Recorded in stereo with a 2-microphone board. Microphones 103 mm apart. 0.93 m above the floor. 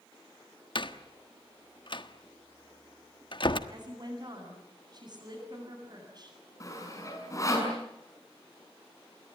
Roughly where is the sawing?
Left.